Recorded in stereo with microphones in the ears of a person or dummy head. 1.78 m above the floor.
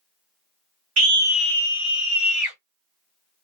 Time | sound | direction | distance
1.0 | a scream | 50° right (ahead or behind) | 0.5 m